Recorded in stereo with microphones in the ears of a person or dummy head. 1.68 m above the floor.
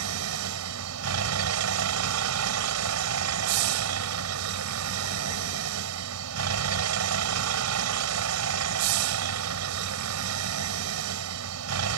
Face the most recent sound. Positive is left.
turn(degrees=-85)